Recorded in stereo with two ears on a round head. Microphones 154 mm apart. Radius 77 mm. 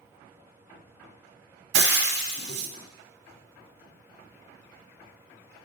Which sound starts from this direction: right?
Frying, at 1.7 s.